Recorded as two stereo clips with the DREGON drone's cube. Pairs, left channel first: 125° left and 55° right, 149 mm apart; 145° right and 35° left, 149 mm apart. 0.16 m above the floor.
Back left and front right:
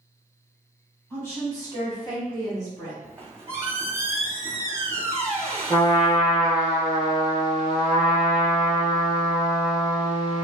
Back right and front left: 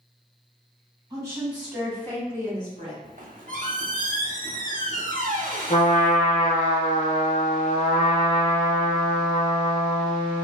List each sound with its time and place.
1.1 s a woman speaking: 65° left, 1.3 m; by 2.9 s 175° left, 1.8 m
3.0 s a squeak: 15° left, 0.7 m
5.7 s a trumpet: straight behind, 0.7 m